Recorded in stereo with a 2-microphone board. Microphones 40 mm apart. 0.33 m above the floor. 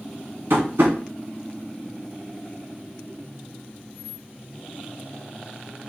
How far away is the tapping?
About 1.4 m.